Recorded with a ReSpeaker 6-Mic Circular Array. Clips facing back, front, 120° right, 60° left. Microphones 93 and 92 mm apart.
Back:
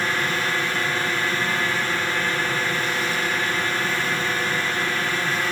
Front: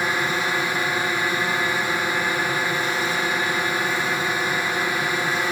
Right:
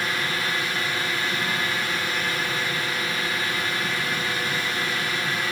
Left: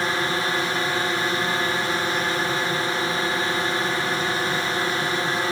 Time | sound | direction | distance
0.0 | a drone | 65° left | ?